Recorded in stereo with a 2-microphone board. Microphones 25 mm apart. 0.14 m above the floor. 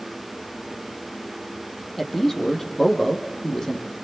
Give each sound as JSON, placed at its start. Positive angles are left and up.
{"t": 2.0, "sound": "a man speaking", "side_deg": 5, "distance_m": 5.5}